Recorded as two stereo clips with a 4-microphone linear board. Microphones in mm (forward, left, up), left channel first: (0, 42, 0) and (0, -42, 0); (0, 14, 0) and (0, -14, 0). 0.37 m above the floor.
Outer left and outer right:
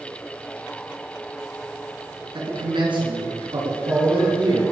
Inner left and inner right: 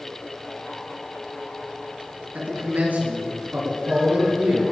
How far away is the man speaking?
About 4 m.